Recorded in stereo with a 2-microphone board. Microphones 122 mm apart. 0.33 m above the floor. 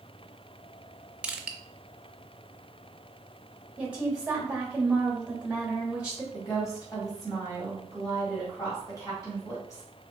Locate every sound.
1.2 s crushing: 10° right (ahead or behind), 0.6 m
3.8 s a woman speaking: 10° right (ahead or behind), 1.6 m
6.3 s a woman speaking: 30° left (ahead or behind), 2 m